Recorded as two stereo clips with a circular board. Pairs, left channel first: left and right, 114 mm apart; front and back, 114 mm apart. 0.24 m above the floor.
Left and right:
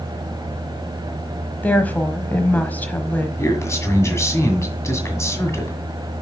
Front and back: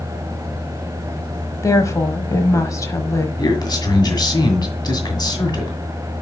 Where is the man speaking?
35° left, 2.0 m.